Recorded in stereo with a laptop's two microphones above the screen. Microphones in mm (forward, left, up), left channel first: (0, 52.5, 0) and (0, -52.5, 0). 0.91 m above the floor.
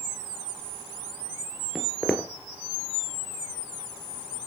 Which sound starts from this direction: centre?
Footsteps, at 1.8 s.